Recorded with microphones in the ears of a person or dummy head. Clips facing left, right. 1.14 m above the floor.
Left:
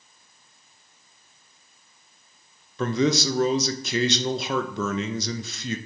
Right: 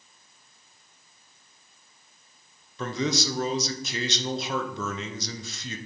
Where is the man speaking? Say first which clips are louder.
Left 6 dB; 50° left (ahead or behind), 0.7 m.